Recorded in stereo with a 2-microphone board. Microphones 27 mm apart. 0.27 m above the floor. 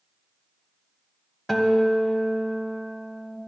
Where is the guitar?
5° left (ahead or behind), 1.2 m.